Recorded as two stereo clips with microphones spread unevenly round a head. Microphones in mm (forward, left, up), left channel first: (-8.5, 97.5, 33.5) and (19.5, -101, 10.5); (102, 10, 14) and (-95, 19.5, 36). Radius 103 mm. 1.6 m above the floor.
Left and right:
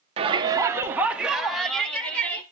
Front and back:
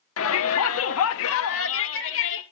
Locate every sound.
0.2 s a shout: 20° right, 1.7 m; by 2.4 s 15° left, 4 m